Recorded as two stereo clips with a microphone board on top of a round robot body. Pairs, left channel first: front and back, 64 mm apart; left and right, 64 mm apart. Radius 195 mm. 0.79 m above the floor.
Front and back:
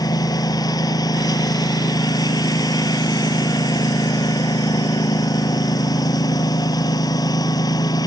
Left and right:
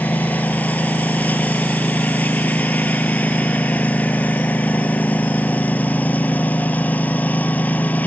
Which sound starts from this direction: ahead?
A lawn mower, at 0.0 s.